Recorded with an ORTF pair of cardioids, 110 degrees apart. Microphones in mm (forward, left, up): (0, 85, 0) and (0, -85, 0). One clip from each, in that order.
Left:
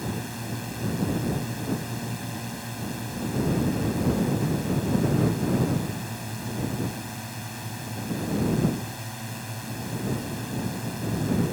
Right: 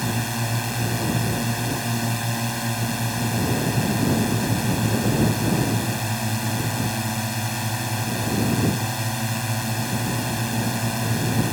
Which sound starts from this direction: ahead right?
A drone, at 0.0 s.